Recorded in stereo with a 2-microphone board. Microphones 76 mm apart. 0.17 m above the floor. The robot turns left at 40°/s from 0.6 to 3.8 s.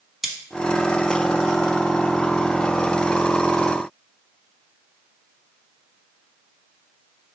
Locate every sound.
0.2 s cutlery clinking: 5° right (ahead or behind), 0.7 m